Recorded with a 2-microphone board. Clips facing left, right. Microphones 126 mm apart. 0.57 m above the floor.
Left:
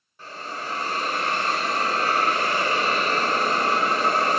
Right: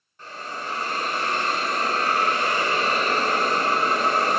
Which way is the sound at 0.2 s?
10° left (ahead or behind).